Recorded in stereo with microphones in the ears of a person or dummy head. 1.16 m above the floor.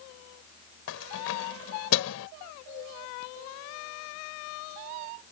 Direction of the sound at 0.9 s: 85° left.